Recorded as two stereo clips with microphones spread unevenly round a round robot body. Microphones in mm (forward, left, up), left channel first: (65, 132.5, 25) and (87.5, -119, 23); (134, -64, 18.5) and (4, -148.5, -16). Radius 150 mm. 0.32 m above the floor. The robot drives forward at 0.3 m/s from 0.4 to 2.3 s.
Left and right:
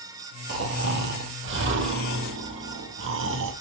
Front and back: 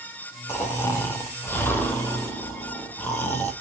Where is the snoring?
40° right, 3.5 m; by 3.5 s 45° right, 3 m.